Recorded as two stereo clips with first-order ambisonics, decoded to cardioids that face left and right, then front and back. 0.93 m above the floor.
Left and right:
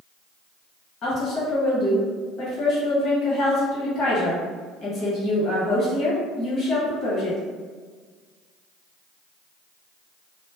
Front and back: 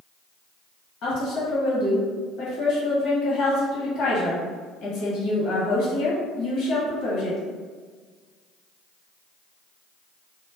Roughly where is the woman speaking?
Ahead left.